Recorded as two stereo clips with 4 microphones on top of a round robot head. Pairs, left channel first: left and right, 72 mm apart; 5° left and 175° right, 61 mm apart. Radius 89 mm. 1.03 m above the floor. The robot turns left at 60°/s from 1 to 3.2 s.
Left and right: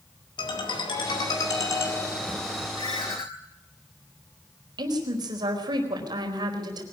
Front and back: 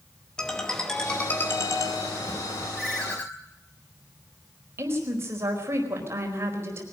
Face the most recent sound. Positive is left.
turn(degrees=-120)